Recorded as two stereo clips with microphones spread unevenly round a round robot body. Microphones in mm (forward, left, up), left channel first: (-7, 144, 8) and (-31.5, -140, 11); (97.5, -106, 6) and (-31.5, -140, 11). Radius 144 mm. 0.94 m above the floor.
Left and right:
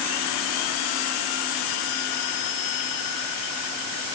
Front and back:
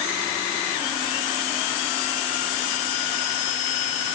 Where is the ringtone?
No ringtone in this recording.